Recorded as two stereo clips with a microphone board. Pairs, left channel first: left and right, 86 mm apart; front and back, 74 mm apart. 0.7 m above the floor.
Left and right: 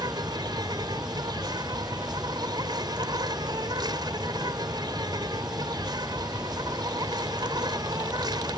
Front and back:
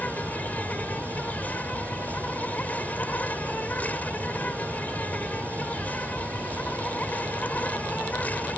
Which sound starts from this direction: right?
An insect, at 0.0 s.